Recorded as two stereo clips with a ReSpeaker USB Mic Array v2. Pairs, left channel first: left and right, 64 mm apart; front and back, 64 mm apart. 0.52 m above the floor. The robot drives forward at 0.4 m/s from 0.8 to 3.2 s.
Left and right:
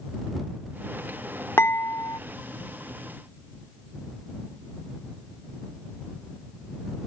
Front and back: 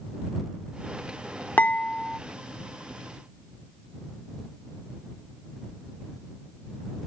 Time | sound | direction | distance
1.6 | dishes clattering | 55° left | ?